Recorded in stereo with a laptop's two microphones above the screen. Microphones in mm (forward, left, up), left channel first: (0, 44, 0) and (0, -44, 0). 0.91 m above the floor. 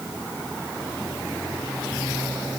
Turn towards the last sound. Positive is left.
No sound to turn to.